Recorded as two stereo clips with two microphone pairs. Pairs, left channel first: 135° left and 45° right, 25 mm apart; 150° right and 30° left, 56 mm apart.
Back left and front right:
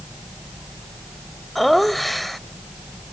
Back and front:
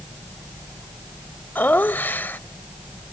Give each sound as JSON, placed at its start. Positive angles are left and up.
{"t": 1.6, "sound": "laughter", "azimuth_deg": -145}